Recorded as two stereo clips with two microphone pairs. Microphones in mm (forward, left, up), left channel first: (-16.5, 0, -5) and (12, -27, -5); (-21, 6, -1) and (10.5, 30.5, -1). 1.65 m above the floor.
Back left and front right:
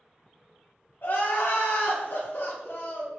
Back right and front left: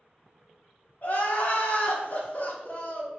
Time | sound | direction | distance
1.0 | crying | 170° left | 0.6 m